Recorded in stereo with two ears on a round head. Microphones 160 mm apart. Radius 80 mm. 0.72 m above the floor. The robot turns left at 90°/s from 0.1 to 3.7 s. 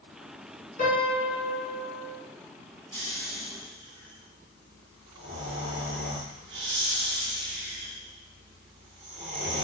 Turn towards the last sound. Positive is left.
turn(degrees=-95)